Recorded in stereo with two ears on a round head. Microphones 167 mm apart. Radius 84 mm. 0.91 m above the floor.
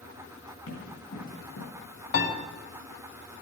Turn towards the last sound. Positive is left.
turn(degrees=55)  # may be behind; listen again after turning